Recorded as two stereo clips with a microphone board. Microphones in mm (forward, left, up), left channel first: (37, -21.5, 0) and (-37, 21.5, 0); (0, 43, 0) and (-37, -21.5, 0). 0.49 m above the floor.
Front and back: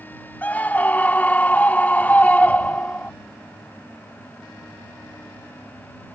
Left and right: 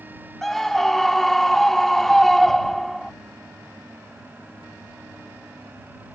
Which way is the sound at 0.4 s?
20° right.